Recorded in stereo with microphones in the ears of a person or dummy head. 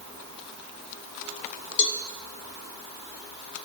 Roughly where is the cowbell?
Left.